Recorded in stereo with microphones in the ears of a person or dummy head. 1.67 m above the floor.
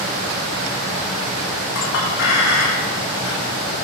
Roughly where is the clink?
Left.